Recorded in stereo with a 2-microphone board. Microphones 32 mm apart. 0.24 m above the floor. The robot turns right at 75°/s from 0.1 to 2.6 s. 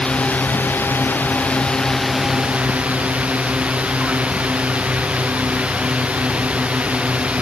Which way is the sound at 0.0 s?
30° left.